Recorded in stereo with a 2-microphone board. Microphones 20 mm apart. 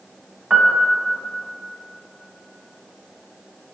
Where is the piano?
25° right (ahead or behind), 0.6 m.